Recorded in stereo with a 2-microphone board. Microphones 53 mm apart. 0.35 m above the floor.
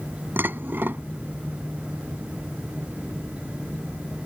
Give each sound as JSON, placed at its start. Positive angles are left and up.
{"t": 0.4, "sound": "dishes clattering", "side_deg": -40}